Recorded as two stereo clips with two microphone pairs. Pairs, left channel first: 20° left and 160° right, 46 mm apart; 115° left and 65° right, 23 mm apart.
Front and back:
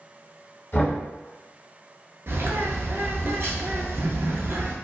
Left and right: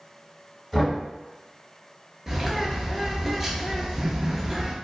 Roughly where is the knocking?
Ahead left.